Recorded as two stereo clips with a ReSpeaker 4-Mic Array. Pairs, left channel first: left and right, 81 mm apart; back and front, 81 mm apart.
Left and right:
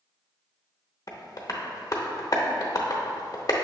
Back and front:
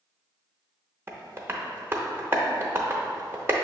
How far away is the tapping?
About 0.6 m.